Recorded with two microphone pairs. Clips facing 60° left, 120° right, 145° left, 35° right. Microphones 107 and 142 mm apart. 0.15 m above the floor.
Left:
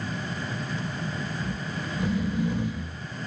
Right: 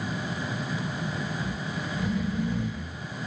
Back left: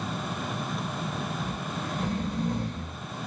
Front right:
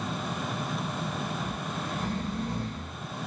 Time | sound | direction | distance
1.4 | snoring | 80° left | 1.0 m